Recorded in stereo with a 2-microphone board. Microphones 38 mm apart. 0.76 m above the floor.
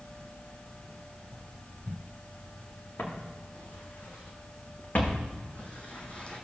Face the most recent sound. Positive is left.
turn(degrees=30)  # may be behind; listen again after turning